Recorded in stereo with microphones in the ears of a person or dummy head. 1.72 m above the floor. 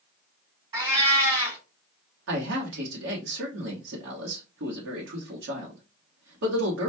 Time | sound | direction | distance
0.7 | a cat meowing | 30° right (ahead or behind) | 1.8 m
2.3 | a man speaking | 70° right (ahead or behind) | 1.3 m